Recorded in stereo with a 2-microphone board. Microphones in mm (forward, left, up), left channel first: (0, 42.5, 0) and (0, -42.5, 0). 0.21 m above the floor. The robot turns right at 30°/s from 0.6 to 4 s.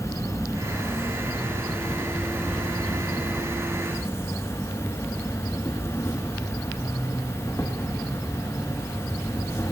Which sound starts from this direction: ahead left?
An insect, at 0.0 s.